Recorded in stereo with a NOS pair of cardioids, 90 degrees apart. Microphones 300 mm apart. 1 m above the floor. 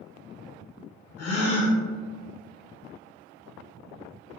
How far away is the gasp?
About 1.0 m.